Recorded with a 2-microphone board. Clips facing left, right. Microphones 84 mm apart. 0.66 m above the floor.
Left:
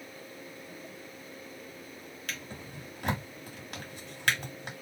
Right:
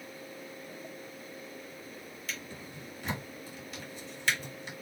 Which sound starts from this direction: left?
A drawer, at 2.3 s.